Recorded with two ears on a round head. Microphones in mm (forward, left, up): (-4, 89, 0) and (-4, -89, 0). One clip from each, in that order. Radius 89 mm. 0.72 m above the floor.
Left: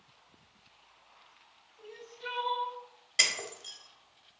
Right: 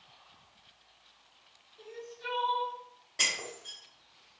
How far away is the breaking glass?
About 0.7 m.